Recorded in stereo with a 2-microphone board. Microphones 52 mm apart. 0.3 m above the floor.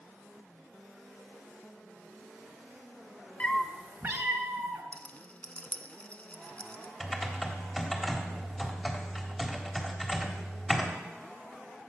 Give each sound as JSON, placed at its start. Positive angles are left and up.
{"t": 3.4, "sound": "a cat meowing", "side_deg": 20, "distance_m": 0.6}
{"t": 4.9, "sound": "a rattle", "side_deg": 25, "distance_m": 0.8}
{"t": 7.0, "sound": "typing on a keyboard", "side_deg": 0, "distance_m": 1.3}